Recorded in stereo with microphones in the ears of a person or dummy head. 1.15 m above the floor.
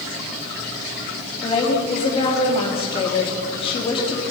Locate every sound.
1.4 s a woman speaking: 25° left (ahead or behind), 2 m